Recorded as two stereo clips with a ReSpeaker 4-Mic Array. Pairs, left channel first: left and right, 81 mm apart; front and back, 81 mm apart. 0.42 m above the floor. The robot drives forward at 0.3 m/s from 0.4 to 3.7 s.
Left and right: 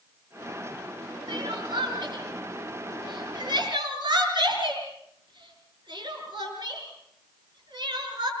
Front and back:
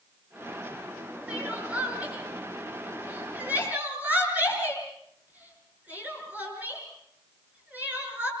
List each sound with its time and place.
1.3 s crying: 105° right, 6 m; by 8.3 s 110° right, 6 m